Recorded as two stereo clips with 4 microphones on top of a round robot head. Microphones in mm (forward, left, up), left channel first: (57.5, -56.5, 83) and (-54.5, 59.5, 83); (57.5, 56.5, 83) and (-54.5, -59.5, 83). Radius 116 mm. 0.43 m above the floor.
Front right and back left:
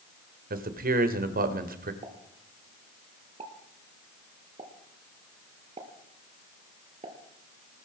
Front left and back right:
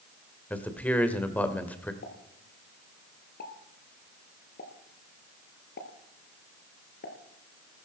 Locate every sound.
0.5 s a man speaking: 125° left, 2 m
2.0 s a pop: 75° left, 2.5 m